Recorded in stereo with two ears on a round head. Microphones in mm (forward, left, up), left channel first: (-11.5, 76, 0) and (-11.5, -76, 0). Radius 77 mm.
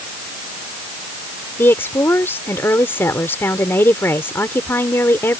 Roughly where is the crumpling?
I don't hear crumpling.